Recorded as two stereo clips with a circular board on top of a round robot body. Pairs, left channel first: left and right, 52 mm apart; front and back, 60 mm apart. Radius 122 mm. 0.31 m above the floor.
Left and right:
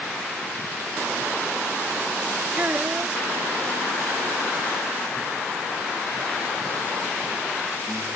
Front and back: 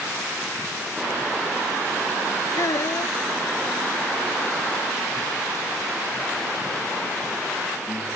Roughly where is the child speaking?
Ahead right.